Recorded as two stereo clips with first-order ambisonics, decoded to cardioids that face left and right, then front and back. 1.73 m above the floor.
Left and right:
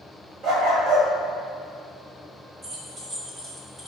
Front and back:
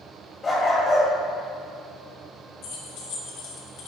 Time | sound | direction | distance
0.4 | a dog barking | 65° right | 2 m
2.6 | keys jangling | 20° right | 1.6 m